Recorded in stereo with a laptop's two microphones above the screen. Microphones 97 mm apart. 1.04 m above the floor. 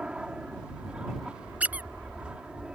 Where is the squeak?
15° right (ahead or behind).